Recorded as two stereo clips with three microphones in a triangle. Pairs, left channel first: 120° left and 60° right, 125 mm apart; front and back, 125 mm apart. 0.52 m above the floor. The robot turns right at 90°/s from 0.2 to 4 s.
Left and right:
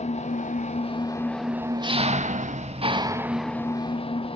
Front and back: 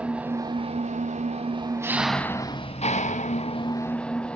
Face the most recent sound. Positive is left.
turn(degrees=80)